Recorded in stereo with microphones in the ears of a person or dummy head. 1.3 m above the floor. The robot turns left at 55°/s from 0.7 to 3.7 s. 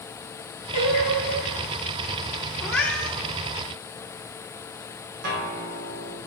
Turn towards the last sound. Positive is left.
turn(degrees=-60)  # may be behind; listen again after turning